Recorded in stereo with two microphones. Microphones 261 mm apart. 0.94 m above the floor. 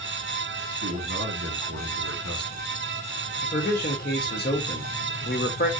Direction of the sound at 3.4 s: 35° left (ahead or behind).